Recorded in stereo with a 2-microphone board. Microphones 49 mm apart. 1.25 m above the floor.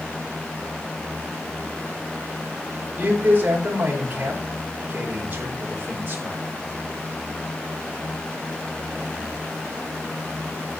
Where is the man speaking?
30° right (ahead or behind), 5 m.